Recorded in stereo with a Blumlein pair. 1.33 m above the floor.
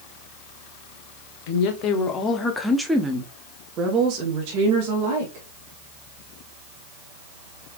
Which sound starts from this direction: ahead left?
A woman speaking, at 1.5 s.